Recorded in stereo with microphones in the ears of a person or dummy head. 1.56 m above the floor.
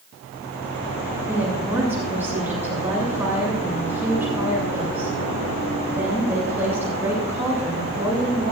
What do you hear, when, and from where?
1.3 s a woman speaking: 15° right (ahead or behind), 7.5 m